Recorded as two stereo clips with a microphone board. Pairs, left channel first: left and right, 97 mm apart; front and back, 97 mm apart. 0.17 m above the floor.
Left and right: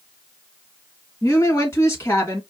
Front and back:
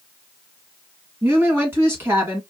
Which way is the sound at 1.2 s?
130° left.